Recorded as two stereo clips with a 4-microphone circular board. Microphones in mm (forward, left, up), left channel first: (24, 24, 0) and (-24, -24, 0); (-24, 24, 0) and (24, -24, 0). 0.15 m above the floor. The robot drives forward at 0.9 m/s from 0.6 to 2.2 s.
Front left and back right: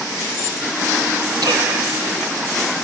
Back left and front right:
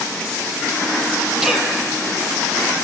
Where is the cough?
125° right, 4 m; by 1.7 s 130° right, 4.5 m.